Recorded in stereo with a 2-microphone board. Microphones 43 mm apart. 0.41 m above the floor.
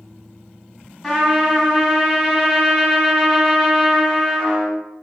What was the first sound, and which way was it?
A trumpet, 10° left (ahead or behind).